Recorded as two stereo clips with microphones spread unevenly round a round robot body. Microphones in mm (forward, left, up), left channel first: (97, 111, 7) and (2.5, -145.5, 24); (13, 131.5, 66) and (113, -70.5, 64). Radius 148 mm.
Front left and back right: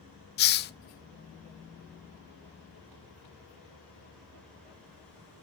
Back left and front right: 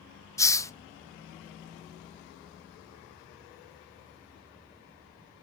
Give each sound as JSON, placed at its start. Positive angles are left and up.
{"t": 0.4, "sound": "a hiss", "azimuth_deg": 40, "distance_m": 0.5}